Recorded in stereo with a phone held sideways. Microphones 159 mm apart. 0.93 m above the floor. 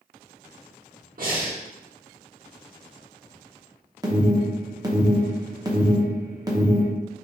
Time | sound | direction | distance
1.2 | breathing | 65° right (ahead or behind) | 1.0 m
4.0 | an alarm | 25° right (ahead or behind) | 0.7 m